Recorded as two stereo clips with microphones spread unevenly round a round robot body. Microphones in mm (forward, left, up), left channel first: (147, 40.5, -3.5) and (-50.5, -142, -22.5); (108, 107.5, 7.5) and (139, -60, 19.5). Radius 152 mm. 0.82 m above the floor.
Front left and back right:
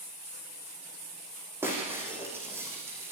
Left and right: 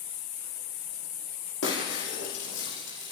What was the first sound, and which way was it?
Breaking glass, 140° left.